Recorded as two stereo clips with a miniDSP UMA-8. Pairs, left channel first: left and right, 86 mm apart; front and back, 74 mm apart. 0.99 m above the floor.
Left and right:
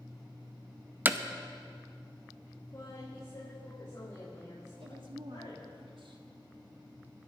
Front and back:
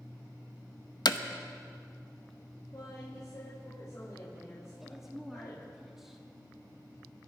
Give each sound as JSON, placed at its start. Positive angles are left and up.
{"t": 1.1, "sound": "hammering", "azimuth_deg": -20, "distance_m": 0.7}
{"t": 2.7, "sound": "a woman speaking", "azimuth_deg": 40, "distance_m": 5.0}
{"t": 4.8, "sound": "a woman speaking", "azimuth_deg": -95, "distance_m": 1.8}